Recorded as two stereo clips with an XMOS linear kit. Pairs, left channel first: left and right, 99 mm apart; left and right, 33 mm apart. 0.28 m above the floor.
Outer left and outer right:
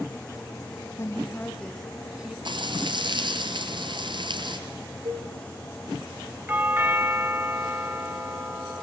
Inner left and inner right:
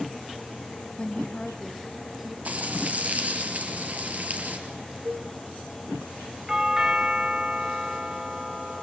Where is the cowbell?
65° right (ahead or behind), 6 m.